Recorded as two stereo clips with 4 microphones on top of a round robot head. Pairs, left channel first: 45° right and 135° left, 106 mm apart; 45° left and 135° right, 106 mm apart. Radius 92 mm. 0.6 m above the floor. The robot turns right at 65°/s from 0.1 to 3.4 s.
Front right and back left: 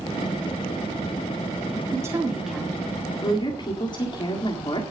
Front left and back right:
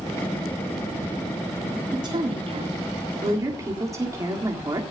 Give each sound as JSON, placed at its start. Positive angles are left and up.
{"t": 1.9, "sound": "a woman speaking", "azimuth_deg": -175, "distance_m": 1.9}